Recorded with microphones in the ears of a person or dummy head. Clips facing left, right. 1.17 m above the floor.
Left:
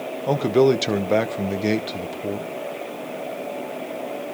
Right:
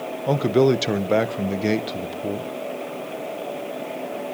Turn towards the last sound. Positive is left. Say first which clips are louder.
# left 1 dB
turn(degrees=-5)  # may be behind; listen again after turning